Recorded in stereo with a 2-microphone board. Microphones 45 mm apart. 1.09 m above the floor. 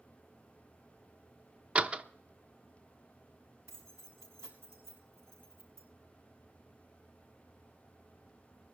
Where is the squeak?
I don't hear a squeak.